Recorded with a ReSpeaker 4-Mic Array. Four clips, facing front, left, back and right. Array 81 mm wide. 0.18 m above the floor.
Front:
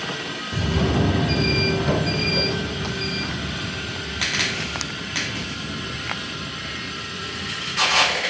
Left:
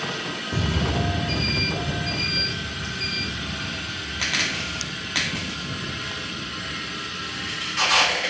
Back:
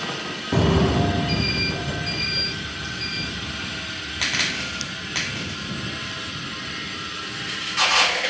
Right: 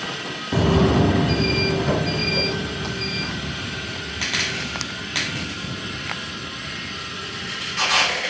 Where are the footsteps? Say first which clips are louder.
Right 9 dB, back 4 dB; 145° right; by 8.2 s 35° right.